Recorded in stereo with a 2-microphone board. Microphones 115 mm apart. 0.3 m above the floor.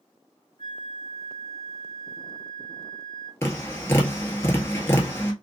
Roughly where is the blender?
I don't hear a blender.